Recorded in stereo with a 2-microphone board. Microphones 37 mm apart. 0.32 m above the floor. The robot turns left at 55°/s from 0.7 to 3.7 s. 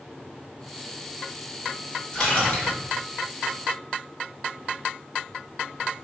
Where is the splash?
155° left, 1.5 m; by 2.7 s 120° left, 1.5 m.